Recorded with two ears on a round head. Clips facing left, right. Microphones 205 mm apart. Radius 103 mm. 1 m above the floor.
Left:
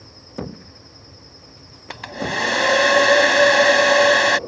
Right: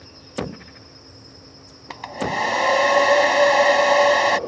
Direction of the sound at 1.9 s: 20° left (ahead or behind).